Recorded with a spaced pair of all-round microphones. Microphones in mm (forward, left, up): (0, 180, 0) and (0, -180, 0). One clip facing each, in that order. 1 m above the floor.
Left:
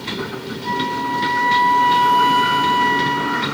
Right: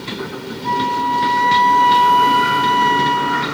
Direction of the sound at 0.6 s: 75° left (ahead or behind).